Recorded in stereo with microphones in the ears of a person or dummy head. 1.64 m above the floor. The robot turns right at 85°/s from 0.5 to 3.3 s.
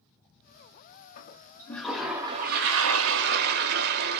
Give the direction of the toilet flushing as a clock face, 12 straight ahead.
8 o'clock.